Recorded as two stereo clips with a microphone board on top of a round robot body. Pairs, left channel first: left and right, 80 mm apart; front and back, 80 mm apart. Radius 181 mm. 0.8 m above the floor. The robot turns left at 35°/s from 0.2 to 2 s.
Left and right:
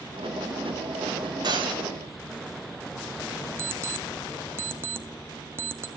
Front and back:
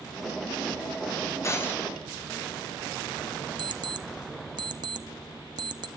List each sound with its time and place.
1.4 s breaking glass: 55° right, 3.5 m; by 1.8 s 70° right, 3.5 m
3.6 s an alarm clock: 150° right, 0.7 m